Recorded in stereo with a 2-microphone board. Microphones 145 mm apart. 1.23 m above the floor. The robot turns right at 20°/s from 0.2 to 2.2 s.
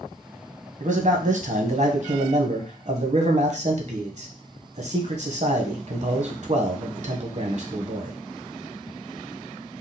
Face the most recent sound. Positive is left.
turn(degrees=-55)  # may be behind; listen again after turning